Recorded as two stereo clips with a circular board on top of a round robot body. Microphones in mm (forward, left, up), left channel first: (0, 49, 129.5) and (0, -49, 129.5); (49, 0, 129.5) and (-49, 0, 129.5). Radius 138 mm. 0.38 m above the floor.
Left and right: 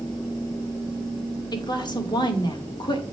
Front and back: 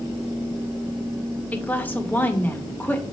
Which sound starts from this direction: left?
A woman speaking, at 1.5 s.